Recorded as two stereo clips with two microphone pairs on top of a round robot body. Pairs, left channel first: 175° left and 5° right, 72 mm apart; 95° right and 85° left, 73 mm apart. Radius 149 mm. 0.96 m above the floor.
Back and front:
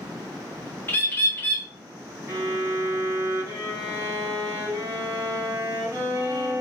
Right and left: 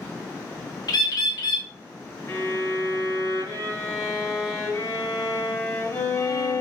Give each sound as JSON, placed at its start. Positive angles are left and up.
{"t": 0.9, "sound": "a bird", "azimuth_deg": -120, "distance_m": 0.8}
{"t": 2.3, "sound": "a violin", "azimuth_deg": -50, "distance_m": 1.6}